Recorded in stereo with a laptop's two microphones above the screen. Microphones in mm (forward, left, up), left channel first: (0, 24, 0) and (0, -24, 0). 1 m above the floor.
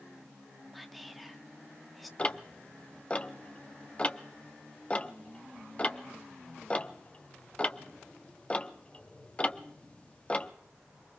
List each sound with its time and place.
0.7 s whispering: centre (ahead or behind), 0.9 m
2.2 s ticking: 25° left (ahead or behind), 0.7 m